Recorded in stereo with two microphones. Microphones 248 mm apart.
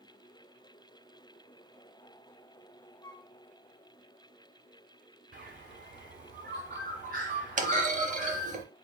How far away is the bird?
About 1.6 m.